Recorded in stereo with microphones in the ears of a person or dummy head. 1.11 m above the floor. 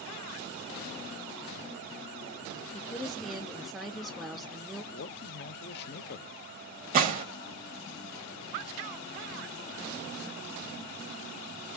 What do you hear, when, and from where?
2.7 s a woman speaking: centre (ahead or behind), 0.5 m
4.9 s a man speaking: 55° left (ahead or behind), 0.6 m
6.9 s a gunshot: 45° right (ahead or behind), 0.6 m